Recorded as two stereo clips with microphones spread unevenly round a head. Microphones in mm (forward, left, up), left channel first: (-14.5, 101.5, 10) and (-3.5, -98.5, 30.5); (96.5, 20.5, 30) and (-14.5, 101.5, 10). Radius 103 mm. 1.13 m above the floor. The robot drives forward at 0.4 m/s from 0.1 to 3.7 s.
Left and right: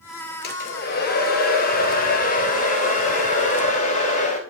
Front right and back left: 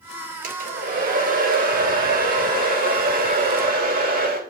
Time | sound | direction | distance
0.4 | a hair dryer | 135° left | 3 m